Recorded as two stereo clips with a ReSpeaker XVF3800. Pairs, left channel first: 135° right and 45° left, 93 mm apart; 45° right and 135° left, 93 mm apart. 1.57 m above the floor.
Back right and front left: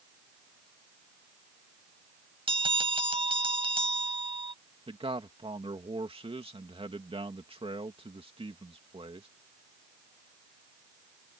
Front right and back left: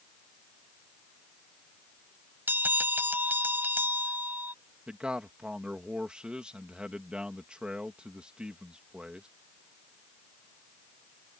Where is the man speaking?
55° left.